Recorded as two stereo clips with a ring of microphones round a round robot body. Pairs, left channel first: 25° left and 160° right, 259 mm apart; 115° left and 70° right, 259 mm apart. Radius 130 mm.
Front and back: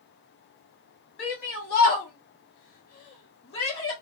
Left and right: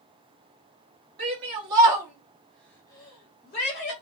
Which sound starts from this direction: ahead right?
A shout, at 1.2 s.